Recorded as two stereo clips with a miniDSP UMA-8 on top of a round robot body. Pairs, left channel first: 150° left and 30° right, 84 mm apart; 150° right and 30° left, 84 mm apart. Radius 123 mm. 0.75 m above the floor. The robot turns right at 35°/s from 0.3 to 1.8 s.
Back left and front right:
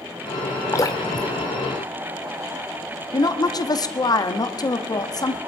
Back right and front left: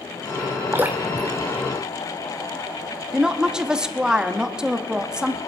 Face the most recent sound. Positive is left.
turn(degrees=110)